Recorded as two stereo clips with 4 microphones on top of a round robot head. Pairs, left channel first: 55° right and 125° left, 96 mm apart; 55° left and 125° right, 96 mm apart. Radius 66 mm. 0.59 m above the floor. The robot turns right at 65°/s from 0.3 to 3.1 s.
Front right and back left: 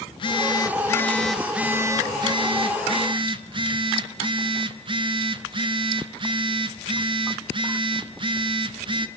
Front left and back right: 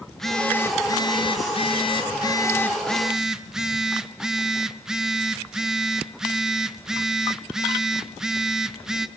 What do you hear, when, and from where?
0.1 s a phone buzzing: 35° right, 1.0 m; by 9.1 s 150° left, 1.0 m